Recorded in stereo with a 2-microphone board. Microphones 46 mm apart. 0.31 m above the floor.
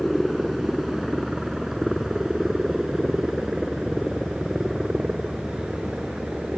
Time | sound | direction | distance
0.0 | a helicopter | 5° right (ahead or behind) | ?